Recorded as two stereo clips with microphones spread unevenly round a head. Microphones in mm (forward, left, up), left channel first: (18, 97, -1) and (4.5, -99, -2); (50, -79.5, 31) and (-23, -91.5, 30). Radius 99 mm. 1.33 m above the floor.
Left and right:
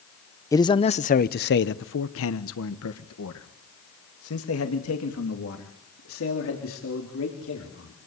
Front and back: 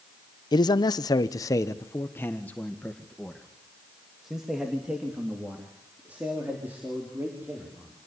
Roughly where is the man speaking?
Ahead.